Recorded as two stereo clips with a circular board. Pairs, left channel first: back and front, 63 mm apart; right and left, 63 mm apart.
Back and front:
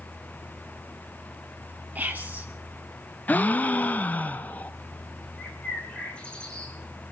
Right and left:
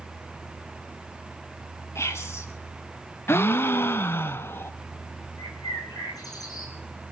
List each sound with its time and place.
1.9 s whispering: 55° right, 1.9 m
3.3 s a gasp: 125° right, 0.5 m
5.4 s a bird: 105° right, 2 m